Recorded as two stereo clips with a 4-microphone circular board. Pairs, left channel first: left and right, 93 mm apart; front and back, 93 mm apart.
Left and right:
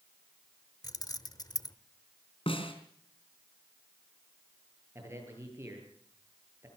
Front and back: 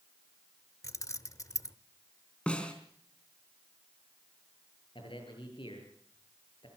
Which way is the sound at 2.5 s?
80° left.